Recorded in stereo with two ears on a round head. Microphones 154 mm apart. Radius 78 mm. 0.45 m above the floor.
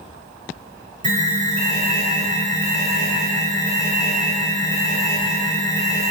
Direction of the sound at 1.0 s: 45° right (ahead or behind).